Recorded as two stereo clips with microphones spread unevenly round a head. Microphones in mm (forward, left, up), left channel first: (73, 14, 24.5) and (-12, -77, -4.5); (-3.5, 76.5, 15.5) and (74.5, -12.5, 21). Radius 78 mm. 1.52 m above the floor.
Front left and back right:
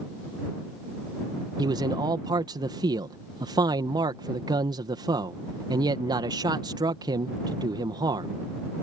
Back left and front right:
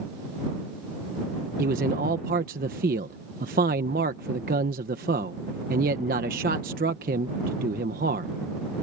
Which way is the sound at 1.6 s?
75° right.